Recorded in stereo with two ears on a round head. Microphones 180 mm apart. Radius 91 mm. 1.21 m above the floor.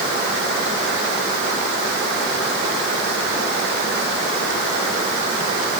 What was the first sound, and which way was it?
Only background noise.